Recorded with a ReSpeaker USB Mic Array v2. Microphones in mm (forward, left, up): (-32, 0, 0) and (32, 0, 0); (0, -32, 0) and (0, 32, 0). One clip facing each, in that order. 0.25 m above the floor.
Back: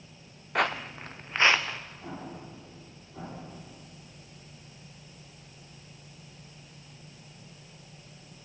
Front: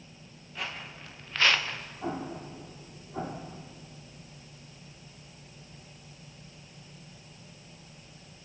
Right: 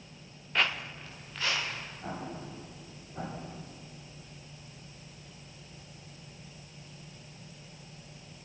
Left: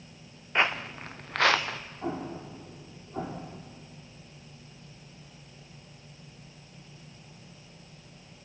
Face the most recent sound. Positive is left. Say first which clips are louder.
# front 5 dB, left 6 dB
turn(degrees=55)